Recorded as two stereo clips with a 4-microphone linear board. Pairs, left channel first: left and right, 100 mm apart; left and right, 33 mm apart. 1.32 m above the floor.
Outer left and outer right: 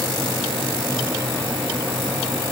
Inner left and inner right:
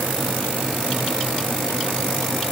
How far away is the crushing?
I don't hear crushing.